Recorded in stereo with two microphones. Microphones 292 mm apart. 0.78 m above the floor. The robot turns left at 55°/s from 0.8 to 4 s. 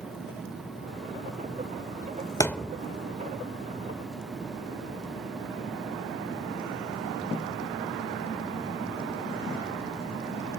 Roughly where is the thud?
Centre.